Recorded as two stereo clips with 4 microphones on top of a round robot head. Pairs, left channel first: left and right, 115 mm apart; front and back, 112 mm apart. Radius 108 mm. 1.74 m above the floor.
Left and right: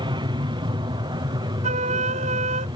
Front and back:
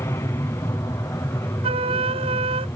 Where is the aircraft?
60° right.